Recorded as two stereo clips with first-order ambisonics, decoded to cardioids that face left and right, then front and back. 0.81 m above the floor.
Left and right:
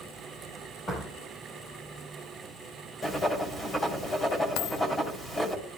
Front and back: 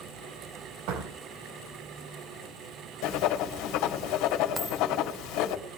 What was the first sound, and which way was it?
A door slam, 165° left.